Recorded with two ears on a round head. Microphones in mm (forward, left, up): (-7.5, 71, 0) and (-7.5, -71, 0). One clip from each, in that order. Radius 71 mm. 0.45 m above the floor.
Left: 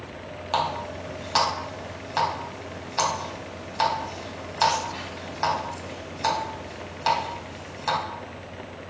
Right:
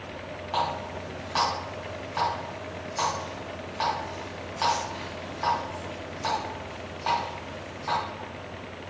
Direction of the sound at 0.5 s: 75° left (ahead or behind).